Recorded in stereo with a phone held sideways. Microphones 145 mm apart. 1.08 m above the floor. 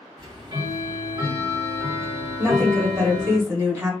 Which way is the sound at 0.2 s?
35° right (ahead or behind).